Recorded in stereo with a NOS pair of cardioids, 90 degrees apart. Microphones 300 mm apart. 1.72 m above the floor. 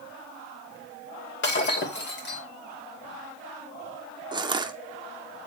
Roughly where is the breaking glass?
Ahead left.